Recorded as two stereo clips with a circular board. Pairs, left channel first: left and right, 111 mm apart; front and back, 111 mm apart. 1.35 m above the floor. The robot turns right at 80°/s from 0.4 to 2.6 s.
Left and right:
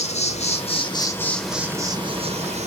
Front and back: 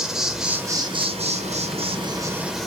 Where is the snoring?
I don't hear snoring.